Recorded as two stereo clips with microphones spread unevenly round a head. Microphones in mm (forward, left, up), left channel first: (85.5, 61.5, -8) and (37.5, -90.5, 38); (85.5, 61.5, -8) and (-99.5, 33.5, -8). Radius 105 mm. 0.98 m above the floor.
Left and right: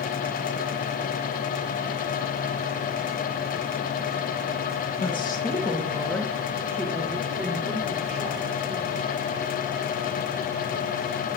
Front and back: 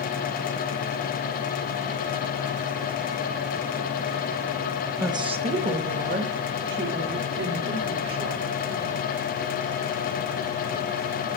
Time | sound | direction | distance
5.0 | a woman speaking | 115° left | 1.1 m